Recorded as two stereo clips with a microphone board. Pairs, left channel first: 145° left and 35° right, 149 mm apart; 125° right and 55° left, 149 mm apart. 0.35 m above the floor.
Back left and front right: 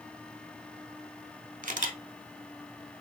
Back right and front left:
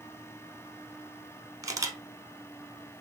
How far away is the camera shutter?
About 0.6 m.